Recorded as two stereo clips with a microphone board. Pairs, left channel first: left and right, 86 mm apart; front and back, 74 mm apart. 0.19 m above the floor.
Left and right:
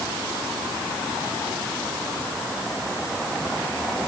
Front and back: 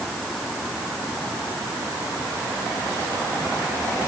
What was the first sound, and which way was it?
Only background noise.